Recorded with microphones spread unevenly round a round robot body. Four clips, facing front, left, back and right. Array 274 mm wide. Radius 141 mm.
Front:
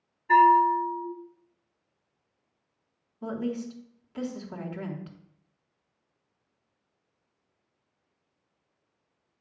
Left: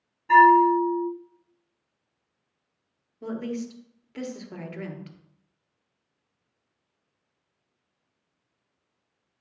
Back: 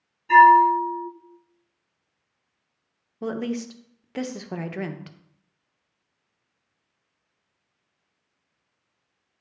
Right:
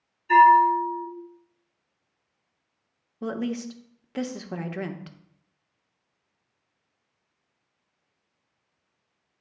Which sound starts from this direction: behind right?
A woman speaking, at 3.2 s.